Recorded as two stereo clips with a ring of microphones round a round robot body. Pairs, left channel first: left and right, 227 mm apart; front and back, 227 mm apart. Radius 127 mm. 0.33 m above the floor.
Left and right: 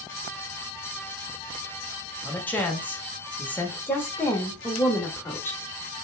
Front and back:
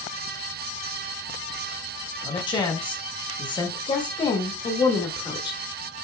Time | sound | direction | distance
2.2 | a man speaking | 20° left | 1.1 m
3.9 | a woman speaking | 25° left | 1.0 m